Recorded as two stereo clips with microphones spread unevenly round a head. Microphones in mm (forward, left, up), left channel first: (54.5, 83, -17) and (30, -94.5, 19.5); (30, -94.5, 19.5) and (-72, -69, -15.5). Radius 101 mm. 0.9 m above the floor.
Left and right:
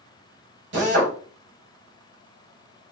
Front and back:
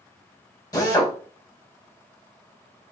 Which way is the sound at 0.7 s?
75° right.